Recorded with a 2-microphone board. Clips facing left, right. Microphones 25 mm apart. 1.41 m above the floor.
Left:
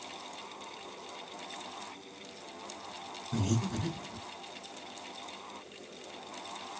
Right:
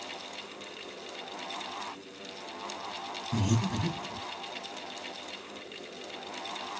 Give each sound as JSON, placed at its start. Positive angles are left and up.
{"t": 3.3, "sound": "breathing", "side_deg": -50, "distance_m": 2.0}